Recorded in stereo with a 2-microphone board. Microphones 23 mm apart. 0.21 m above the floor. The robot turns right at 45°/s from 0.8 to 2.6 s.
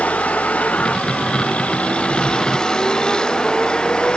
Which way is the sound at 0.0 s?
85° left.